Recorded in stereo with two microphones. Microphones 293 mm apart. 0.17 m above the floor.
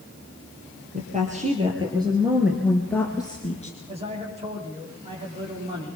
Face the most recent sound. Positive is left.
turn(degrees=-20)  # may be behind; listen again after turning